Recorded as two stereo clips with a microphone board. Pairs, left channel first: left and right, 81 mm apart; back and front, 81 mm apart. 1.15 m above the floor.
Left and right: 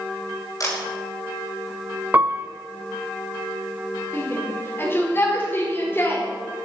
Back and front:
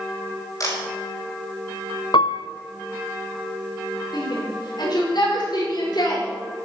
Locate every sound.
0.6 s a camera shutter: 135° left, 5 m
2.1 s a piano: 160° right, 0.6 m
4.1 s a shout: 150° left, 4.5 m